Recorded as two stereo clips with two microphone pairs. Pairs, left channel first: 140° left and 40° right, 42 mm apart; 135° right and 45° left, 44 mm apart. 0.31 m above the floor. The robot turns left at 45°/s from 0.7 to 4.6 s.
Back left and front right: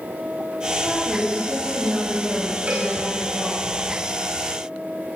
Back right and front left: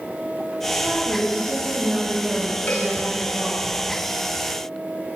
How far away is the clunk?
No clunk in this recording.